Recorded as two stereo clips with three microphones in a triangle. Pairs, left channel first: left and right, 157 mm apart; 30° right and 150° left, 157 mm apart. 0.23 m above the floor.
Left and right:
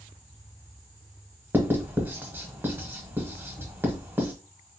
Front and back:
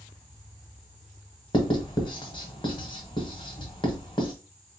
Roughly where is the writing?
Ahead right.